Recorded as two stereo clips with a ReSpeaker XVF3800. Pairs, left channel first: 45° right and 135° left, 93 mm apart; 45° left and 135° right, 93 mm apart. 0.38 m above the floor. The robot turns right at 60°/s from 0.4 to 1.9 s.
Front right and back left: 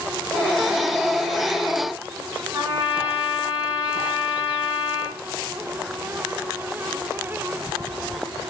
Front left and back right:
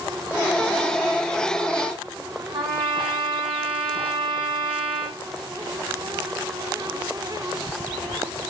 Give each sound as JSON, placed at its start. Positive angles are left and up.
{"t": 2.5, "sound": "a trumpet", "azimuth_deg": -160, "distance_m": 3.0}